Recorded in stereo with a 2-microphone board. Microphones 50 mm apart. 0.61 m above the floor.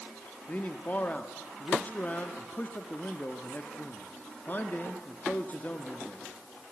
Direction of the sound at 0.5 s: 35° left (ahead or behind).